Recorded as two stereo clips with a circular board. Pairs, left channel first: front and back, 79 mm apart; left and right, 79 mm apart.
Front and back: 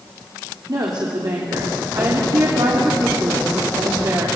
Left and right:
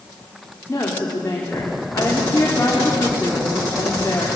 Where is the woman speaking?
145° left, 3.5 m.